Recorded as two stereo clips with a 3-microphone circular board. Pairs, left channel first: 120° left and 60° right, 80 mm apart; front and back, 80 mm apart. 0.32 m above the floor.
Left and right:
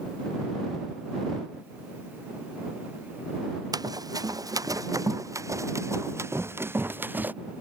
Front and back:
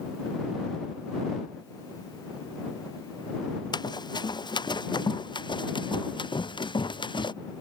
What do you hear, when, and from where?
3.7 s running footsteps: 25° right; by 7.3 s 5° left